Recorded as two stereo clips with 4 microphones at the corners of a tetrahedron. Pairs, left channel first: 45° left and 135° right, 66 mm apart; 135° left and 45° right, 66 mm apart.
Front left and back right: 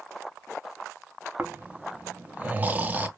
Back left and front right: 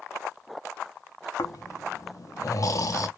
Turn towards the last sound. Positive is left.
turn(degrees=160)